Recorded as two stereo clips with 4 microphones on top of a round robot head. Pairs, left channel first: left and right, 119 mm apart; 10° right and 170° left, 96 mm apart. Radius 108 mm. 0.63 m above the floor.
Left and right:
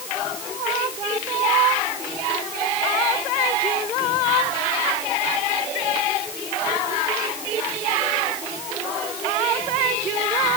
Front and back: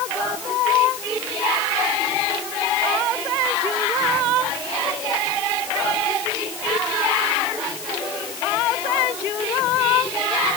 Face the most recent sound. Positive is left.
No sound to turn to.